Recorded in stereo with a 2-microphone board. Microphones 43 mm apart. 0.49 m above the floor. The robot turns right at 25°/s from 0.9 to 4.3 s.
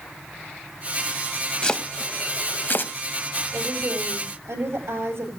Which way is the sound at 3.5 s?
70° right (ahead or behind).